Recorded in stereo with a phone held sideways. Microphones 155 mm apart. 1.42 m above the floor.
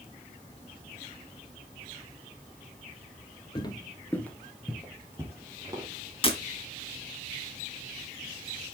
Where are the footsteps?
30° left (ahead or behind), 1.6 m; by 5.9 s 25° right (ahead or behind), 3 m.